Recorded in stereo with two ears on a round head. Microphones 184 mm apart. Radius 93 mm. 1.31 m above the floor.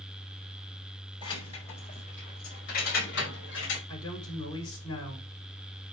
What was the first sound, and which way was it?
Keys jangling, 25° left (ahead or behind).